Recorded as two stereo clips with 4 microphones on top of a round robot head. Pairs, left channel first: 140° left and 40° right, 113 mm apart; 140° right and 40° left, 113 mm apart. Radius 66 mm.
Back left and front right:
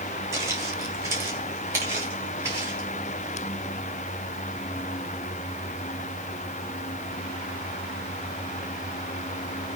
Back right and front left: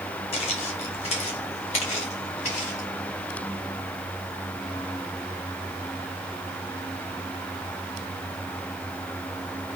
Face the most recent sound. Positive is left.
turn(degrees=-110)